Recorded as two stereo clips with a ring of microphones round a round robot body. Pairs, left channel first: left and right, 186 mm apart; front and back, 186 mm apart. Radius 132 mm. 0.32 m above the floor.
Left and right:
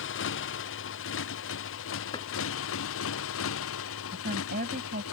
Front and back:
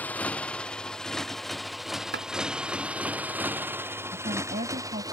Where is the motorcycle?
80° left; by 5.1 s 110° left.